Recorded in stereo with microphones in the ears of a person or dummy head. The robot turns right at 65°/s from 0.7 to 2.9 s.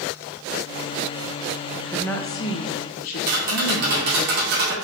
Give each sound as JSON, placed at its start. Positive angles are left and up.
{"t": 1.7, "sound": "a woman speaking", "azimuth_deg": -15, "distance_m": 1.1}
{"t": 3.3, "sound": "tapping", "side_deg": -55, "distance_m": 2.5}